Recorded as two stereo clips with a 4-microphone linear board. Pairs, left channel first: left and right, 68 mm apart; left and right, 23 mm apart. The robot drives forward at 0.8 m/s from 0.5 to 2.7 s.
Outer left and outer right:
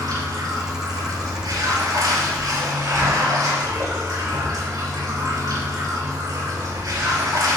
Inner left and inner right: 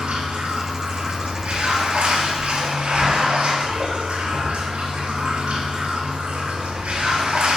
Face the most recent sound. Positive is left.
turn(degrees=-70)  # may be behind; listen again after turning